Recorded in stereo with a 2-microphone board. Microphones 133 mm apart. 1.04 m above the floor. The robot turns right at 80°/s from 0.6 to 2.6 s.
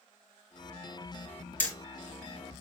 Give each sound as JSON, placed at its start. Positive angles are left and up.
{"t": 1.6, "sound": "hammering", "side_deg": 10, "distance_m": 3.5}